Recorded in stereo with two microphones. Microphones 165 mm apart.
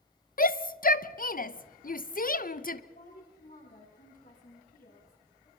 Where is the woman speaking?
60° left (ahead or behind), 10 m.